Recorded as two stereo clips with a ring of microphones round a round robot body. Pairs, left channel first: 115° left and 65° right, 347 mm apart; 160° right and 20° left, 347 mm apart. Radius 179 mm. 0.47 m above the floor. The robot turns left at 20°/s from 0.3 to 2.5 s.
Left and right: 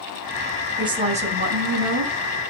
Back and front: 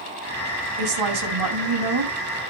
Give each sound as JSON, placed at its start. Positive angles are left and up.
{"t": 0.8, "sound": "a woman speaking", "azimuth_deg": 10, "distance_m": 3.5}